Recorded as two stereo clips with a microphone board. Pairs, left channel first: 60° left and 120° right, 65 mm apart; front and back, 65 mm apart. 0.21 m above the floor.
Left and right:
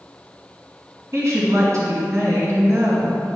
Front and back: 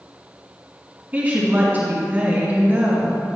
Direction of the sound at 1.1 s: 125° right.